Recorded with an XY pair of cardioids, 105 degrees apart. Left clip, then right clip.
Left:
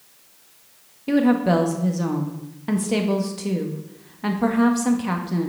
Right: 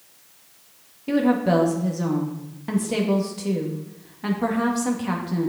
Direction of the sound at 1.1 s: 15° left.